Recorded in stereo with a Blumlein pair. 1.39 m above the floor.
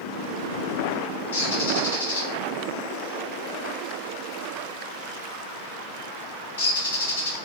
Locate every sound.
1.3 s a bird: 65° left, 1.3 m